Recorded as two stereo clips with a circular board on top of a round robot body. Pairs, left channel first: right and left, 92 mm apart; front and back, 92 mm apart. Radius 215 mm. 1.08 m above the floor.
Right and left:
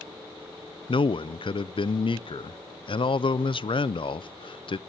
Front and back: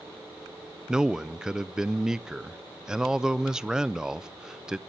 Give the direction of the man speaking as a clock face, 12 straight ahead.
3 o'clock.